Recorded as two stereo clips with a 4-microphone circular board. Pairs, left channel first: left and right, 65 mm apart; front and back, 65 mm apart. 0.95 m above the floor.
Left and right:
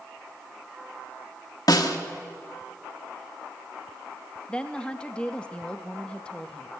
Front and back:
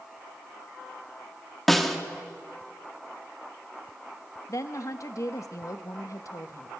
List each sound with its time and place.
1.7 s a snare drum: 90° left, 1.5 m
4.5 s a woman speaking: 20° left, 1.2 m